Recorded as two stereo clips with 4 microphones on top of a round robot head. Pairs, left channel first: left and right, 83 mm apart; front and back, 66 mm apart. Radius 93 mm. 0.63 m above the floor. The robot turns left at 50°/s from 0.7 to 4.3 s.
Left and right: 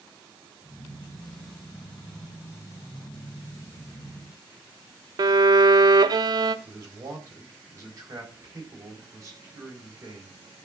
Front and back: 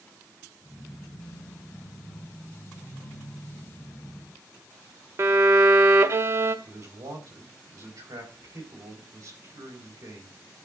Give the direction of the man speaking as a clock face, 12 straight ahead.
5 o'clock.